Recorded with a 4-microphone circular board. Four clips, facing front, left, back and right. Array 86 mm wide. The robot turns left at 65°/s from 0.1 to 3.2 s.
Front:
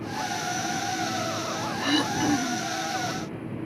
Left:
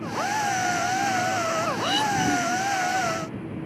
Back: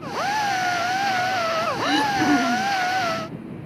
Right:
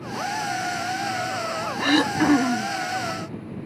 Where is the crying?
I don't hear crying.